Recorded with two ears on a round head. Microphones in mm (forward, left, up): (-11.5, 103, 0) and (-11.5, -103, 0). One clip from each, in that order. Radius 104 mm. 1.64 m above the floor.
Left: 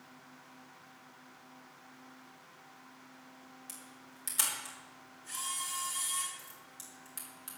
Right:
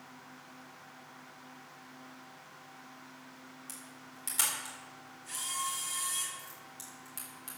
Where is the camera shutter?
5° left (ahead or behind), 4.5 m.